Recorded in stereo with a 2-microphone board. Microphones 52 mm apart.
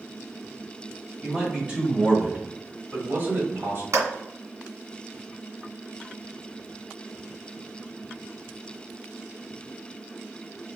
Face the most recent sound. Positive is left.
turn(degrees=-70)  # may be behind; listen again after turning